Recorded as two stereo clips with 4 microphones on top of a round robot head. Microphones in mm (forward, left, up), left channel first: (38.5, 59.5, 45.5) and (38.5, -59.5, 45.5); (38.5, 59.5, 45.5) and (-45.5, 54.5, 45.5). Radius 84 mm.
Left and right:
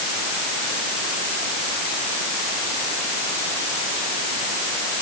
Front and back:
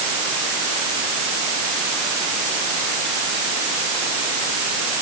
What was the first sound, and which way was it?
Only background noise.